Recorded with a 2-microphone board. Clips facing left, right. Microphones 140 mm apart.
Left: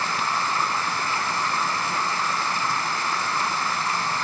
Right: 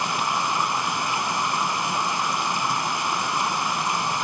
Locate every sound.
0.0 s running water: 15° right (ahead or behind), 0.7 m